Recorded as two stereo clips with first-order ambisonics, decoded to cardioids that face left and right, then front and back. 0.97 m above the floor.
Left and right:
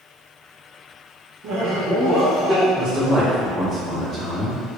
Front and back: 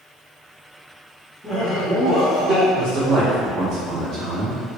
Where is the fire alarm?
I don't hear a fire alarm.